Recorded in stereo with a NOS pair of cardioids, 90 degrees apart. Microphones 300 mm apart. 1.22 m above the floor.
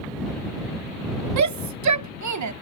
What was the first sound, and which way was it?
A shout, 70° right.